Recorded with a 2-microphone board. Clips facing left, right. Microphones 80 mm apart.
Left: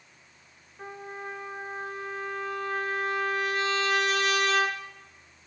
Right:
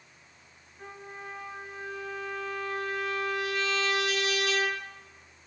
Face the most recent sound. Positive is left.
turn(degrees=40)  # may be behind; listen again after turning